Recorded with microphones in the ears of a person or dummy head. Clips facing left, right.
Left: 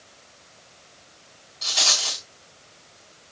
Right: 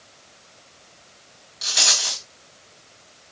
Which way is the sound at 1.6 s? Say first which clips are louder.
Even; 15° right (ahead or behind).